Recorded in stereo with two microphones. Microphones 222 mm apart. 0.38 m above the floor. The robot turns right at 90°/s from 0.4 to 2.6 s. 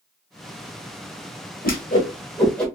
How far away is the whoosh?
About 1.1 m.